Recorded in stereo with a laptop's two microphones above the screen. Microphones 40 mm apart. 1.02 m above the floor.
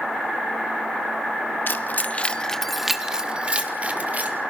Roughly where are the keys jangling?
Left.